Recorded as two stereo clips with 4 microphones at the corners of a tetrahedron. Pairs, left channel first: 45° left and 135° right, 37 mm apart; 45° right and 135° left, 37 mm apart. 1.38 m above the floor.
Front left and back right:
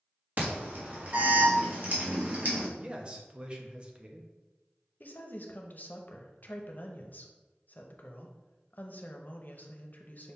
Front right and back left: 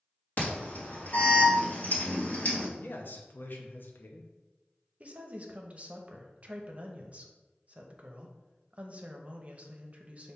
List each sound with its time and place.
0.4 s an alarm: 90° right, 1.4 m
2.8 s a man speaking: 75° right, 0.7 m
5.0 s a woman speaking: 85° left, 0.6 m